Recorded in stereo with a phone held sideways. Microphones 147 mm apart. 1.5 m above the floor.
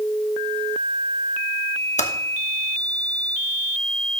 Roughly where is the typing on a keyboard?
Left.